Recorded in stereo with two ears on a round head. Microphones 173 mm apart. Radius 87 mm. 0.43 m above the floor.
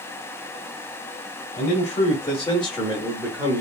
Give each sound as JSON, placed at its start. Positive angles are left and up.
{"t": 1.6, "sound": "a man speaking", "side_deg": 40, "distance_m": 1.1}